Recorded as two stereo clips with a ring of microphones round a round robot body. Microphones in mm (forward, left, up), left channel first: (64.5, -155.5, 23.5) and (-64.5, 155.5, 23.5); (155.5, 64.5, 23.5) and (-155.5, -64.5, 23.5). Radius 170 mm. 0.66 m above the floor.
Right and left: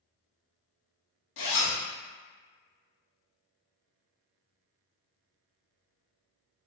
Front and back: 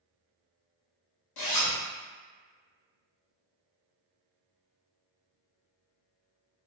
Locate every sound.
1.4 s a zipper: 15° right, 0.8 m